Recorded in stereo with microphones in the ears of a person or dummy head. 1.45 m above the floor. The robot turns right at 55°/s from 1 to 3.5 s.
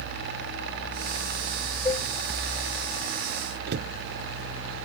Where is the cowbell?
20° left (ahead or behind); by 2.1 s 35° left (ahead or behind).